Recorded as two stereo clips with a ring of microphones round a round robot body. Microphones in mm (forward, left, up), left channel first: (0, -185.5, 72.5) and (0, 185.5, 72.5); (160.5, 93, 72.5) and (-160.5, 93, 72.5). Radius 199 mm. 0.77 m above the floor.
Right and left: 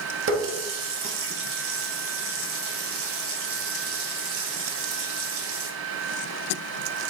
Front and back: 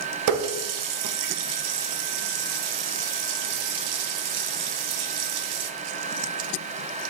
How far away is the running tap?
About 0.5 m.